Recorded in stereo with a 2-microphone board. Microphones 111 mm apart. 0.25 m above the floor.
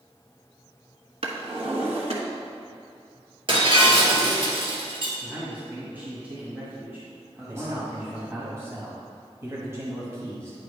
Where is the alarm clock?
I don't hear an alarm clock.